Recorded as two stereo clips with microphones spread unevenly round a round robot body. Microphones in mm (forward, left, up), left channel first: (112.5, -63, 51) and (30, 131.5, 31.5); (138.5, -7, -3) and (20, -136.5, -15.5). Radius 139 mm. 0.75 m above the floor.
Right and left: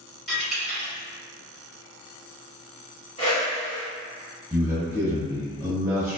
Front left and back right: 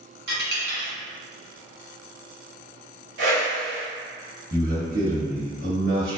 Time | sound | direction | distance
0.3 | a dropped coin | 125° right | 1.4 m
3.2 | a whoosh | 135° right | 1.3 m
4.5 | a man speaking | 170° right | 1.1 m